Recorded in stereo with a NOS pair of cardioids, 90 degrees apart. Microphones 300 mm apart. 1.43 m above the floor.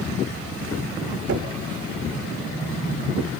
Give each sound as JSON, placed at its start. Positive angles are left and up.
{"t": 1.3, "sound": "knocking", "azimuth_deg": -65, "distance_m": 1.7}